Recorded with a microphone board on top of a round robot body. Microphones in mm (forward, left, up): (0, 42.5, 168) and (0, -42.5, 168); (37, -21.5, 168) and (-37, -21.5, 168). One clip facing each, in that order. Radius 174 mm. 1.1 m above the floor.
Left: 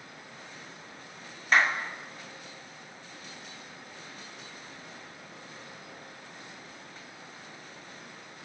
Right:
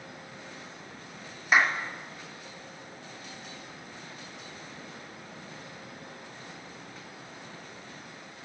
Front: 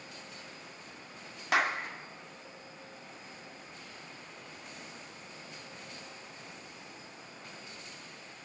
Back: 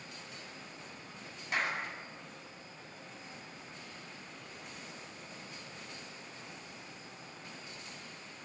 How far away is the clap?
About 2.5 m.